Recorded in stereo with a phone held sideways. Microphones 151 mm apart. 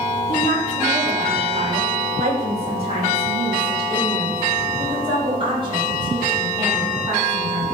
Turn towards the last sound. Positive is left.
turn(degrees=-30)  # may be behind; listen again after turning